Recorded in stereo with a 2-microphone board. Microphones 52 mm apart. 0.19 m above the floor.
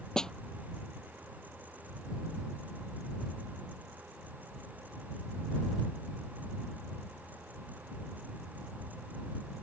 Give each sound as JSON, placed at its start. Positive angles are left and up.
{"t": 0.2, "sound": "a snare drum", "side_deg": 10}